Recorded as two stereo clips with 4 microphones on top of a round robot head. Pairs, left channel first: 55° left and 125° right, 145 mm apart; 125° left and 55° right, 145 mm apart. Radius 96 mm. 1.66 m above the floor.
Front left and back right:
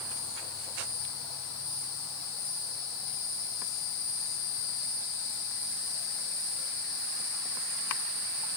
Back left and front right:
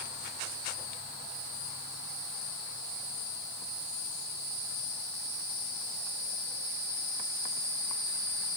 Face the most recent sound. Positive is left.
No sound to turn to.